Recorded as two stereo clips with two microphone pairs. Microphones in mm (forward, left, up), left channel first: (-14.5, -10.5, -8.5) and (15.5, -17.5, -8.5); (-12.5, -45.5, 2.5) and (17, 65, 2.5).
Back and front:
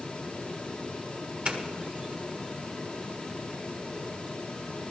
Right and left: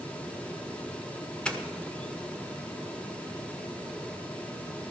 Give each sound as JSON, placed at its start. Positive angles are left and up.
{"t": 1.4, "sound": "a doorbell", "azimuth_deg": -30, "distance_m": 1.5}